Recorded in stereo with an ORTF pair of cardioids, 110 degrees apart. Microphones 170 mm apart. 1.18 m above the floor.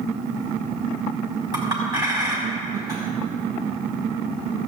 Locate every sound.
1.5 s a clink: 25° right, 4.5 m